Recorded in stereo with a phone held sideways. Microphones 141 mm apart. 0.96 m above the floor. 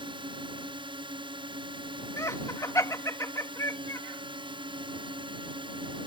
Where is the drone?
40° right (ahead or behind).